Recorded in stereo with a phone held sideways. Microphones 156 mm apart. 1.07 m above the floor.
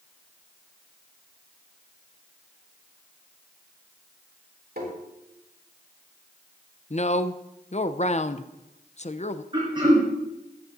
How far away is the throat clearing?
About 4 m.